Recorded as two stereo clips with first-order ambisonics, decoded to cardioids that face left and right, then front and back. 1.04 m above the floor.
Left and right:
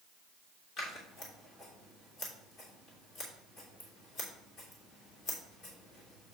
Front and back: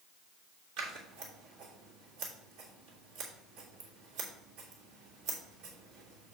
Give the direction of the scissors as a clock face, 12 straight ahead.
7 o'clock.